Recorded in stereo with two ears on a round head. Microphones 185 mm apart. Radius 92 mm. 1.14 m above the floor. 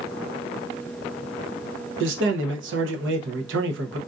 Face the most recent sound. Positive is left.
turn(degrees=-60)  # may be behind; listen again after turning